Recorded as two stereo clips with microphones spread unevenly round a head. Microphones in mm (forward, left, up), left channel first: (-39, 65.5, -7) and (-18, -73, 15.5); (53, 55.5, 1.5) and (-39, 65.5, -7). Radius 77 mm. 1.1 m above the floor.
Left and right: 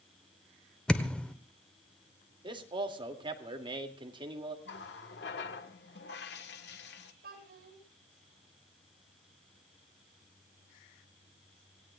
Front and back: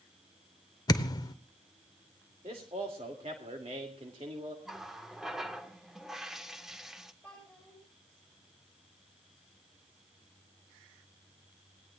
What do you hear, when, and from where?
0.9 s a thud: 10° left, 1.0 m
2.4 s a man speaking: 140° right, 2.5 m
4.7 s a running tap: 85° left, 1.7 m
7.2 s a child speaking: 95° right, 9 m